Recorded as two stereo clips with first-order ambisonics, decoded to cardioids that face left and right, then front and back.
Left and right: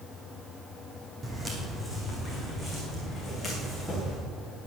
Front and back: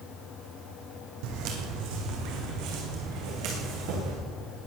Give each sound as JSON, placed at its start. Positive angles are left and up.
{"t": 1.2, "sound": "footsteps", "azimuth_deg": -165, "distance_m": 2.5}